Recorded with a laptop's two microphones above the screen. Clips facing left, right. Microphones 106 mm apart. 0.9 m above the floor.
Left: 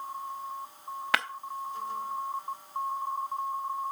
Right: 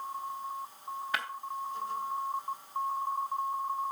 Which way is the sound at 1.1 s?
70° left (ahead or behind).